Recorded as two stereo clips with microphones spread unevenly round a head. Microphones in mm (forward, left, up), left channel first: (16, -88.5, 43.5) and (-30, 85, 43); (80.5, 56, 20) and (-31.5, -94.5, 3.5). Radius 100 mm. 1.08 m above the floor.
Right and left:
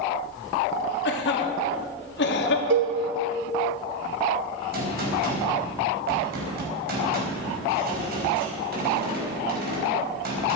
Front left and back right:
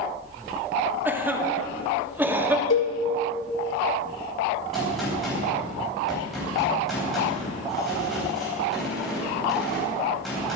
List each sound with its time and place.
1.1 s a cough: 45° right, 1.9 m
2.7 s a cowbell: 80° left, 1.5 m
4.7 s a gunshot: 145° left, 4.5 m